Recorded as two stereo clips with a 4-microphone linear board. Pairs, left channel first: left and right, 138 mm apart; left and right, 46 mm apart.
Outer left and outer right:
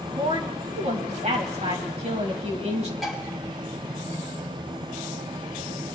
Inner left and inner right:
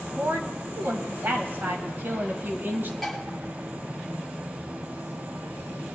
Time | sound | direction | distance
0.2 | a woman speaking | 55° right (ahead or behind) | 2.5 m
3.0 | dishes clattering | centre (ahead or behind) | 3.5 m